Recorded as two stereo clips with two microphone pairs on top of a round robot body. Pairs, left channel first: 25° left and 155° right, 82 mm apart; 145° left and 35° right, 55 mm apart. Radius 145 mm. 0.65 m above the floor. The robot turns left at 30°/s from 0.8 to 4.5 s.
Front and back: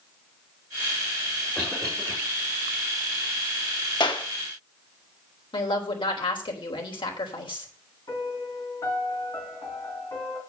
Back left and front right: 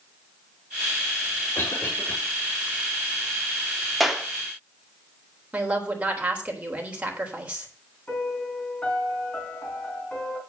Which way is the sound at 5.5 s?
25° left.